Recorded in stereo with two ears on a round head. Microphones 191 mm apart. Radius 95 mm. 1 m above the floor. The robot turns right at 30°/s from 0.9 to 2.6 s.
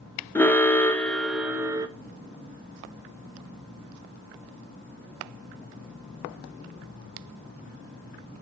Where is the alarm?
10° left (ahead or behind), 0.7 m; by 1.9 s 20° right (ahead or behind), 0.7 m.